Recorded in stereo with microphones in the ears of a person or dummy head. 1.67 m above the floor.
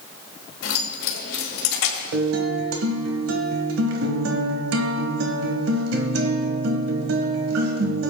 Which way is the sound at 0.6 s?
70° left (ahead or behind).